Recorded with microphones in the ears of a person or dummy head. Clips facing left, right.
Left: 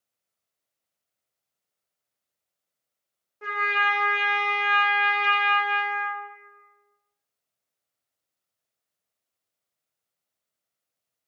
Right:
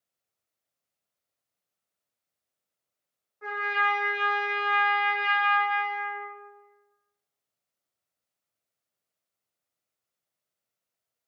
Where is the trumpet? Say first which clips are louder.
Left 1 dB; 40° left (ahead or behind), 0.6 m.